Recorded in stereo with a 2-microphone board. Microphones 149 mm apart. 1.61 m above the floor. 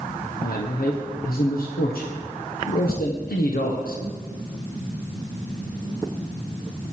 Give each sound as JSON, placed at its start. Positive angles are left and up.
{"t": 0.4, "sound": "a man speaking", "side_deg": 80, "distance_m": 1.4}